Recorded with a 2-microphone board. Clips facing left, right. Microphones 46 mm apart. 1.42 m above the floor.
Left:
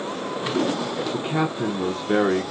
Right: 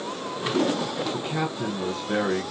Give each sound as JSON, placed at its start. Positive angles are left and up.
{"t": 1.1, "sound": "a man speaking", "side_deg": 25, "distance_m": 0.8}